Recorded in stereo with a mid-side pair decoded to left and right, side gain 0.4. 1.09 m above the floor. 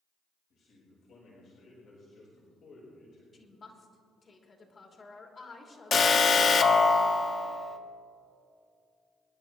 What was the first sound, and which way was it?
A man speaking, 70° left.